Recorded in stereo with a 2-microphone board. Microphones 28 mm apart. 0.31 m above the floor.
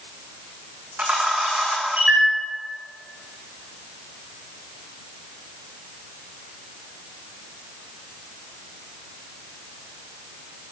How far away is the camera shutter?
About 3 m.